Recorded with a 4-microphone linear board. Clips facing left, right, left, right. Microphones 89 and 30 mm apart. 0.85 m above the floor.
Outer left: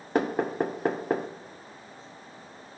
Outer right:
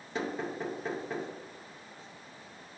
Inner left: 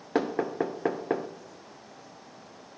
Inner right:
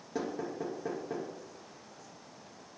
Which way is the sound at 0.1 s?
55° left (ahead or behind).